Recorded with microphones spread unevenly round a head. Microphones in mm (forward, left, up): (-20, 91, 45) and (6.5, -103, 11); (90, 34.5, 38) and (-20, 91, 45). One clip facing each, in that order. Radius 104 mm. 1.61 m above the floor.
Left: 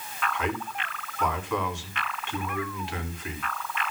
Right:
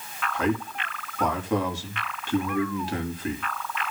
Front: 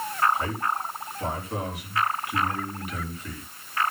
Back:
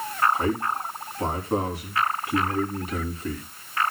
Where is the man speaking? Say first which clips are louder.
Right 7 dB, back 3 dB; 140° right, 3 m.